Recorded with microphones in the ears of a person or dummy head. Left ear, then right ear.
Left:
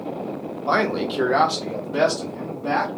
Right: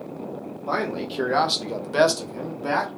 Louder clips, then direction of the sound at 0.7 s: Left 5 dB; 25° left (ahead or behind).